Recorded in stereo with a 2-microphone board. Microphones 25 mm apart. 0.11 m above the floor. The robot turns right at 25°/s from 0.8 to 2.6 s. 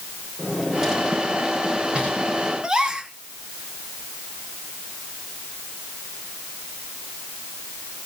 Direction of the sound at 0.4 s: 20° right (ahead or behind).